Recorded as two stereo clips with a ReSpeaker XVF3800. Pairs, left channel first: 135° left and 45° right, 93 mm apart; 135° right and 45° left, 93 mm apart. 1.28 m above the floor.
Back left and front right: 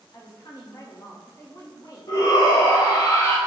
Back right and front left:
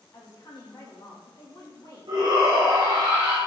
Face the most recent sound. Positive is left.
turn(degrees=85)